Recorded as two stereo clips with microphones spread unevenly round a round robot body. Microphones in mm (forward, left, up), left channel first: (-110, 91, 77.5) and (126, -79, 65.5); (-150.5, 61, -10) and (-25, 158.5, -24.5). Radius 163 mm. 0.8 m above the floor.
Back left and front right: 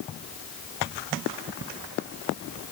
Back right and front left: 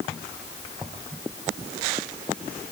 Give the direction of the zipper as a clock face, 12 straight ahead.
I don't hear a zipper.